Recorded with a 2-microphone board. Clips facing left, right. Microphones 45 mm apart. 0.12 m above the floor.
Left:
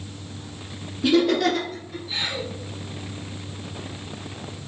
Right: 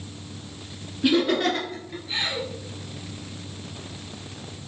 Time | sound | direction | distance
1.0 | laughter | 20° right (ahead or behind) | 1.4 m